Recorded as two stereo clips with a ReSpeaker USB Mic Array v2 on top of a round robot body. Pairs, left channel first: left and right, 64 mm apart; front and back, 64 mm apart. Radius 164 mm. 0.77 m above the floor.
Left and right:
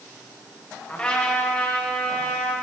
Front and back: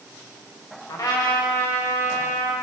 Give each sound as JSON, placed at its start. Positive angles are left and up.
{"t": 0.9, "sound": "a trumpet", "azimuth_deg": 20, "distance_m": 3.5}